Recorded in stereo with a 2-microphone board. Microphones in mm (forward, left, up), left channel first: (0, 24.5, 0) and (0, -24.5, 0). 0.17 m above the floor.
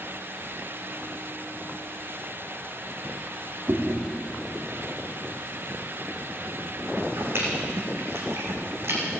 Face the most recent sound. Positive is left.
turn(degrees=-60)  # may be behind; listen again after turning